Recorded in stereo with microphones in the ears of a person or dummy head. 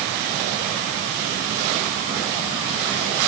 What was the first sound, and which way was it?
Only background noise.